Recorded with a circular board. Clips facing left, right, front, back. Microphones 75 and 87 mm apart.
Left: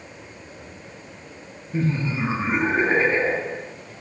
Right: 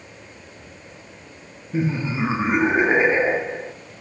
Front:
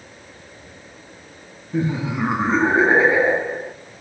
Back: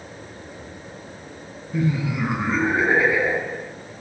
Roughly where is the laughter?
Ahead right.